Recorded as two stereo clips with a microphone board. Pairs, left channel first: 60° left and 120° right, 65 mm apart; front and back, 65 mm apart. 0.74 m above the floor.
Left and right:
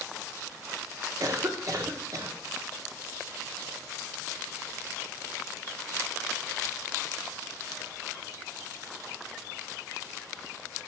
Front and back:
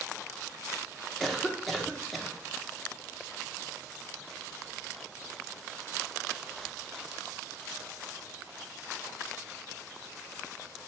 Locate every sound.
1.2 s a cough: 90° right, 1.7 m